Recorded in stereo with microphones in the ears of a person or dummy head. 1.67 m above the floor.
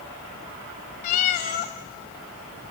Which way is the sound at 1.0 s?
30° left (ahead or behind).